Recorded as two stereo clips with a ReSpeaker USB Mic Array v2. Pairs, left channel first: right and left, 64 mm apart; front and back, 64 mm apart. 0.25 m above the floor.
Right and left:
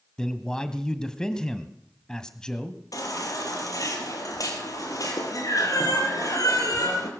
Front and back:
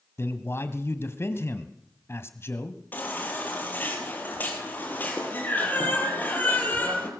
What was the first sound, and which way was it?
A man speaking, 15° right.